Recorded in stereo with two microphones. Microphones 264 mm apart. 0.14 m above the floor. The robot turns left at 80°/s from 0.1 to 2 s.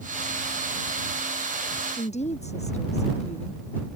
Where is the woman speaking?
30° left (ahead or behind); by 3.6 s 25° left (ahead or behind).